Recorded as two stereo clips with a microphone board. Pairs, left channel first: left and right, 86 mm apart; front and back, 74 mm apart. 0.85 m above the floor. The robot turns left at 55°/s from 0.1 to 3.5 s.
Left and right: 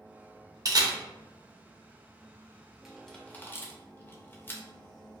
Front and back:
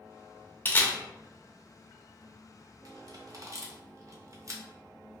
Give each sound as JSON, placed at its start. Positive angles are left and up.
{"t": 0.7, "sound": "a camera shutter", "azimuth_deg": -55, "distance_m": 0.5}